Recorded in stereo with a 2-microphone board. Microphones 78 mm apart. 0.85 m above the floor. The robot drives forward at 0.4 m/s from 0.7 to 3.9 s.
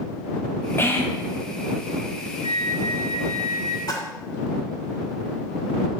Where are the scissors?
No scissors in this recording.